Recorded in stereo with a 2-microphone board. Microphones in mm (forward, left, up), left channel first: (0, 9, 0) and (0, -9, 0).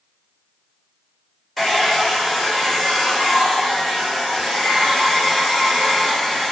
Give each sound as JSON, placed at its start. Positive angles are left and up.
{"t": 1.6, "sound": "a hair dryer", "side_deg": 5, "distance_m": 4.5}